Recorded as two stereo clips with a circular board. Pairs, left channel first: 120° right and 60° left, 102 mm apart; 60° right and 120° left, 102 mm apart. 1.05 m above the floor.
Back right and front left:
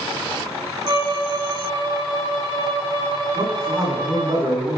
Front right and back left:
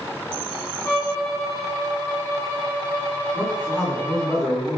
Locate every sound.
0.8 s a violin: 10° left, 5 m
3.3 s a man speaking: 15° left, 9.5 m